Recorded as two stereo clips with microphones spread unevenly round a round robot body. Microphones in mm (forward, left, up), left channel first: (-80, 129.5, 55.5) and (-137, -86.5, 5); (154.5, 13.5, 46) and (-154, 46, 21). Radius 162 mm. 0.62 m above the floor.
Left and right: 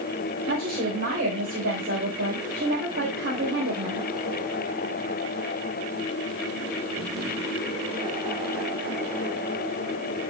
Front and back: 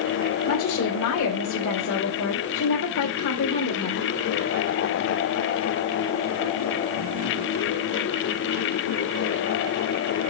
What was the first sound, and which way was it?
A woman speaking, 55° right.